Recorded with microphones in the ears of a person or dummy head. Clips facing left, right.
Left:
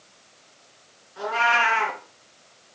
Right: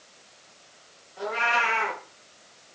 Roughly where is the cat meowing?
Left.